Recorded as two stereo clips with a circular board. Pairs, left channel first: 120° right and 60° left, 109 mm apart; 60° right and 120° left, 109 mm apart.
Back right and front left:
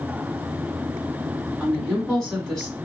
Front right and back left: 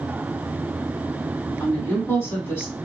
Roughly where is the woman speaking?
Ahead right.